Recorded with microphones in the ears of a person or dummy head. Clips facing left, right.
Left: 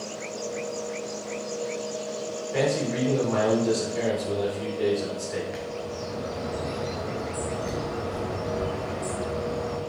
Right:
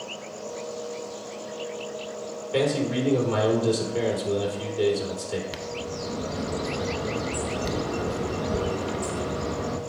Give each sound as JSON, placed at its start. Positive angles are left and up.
{"t": 2.5, "sound": "a man speaking", "side_deg": -50, "distance_m": 3.5}
{"t": 5.5, "sound": "a bird", "side_deg": -55, "distance_m": 0.9}